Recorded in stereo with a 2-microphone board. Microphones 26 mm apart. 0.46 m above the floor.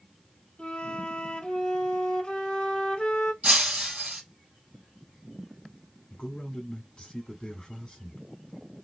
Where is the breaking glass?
50° right (ahead or behind), 2 m.